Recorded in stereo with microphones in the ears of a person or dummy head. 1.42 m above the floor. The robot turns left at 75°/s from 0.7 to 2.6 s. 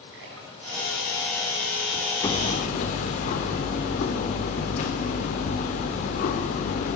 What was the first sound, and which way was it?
A splash, 75° right (ahead or behind).